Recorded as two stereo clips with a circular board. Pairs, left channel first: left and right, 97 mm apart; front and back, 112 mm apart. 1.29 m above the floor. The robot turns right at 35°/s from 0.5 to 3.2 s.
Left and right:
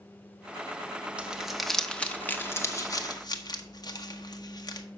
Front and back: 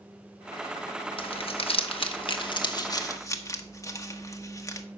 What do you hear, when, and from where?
1.2 s crumpling: 15° right, 1.0 m; by 4.9 s 55° left, 1.0 m